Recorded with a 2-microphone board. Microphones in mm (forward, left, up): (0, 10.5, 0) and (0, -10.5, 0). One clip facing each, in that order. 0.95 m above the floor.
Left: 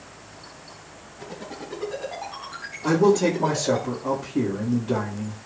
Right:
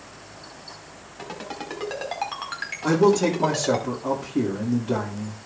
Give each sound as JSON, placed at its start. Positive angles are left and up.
{"t": 1.2, "sound": "a ringtone", "side_deg": -90, "distance_m": 4.5}
{"t": 2.8, "sound": "a man speaking", "side_deg": -15, "distance_m": 2.0}